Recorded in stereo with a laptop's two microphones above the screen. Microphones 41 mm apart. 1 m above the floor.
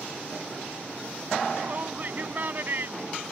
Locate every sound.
1.6 s a shout: 40° right (ahead or behind); by 3.2 s 55° right (ahead or behind)